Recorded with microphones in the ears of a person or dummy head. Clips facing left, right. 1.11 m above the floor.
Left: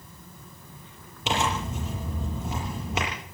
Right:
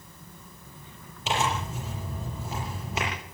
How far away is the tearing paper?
About 8 m.